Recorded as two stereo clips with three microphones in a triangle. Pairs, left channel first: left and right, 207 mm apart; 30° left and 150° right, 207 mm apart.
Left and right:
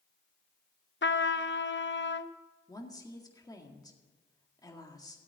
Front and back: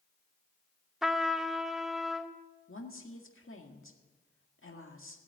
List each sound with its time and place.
1.0 s a trumpet: 120° left, 0.7 m
2.7 s a woman speaking: 20° left, 1.9 m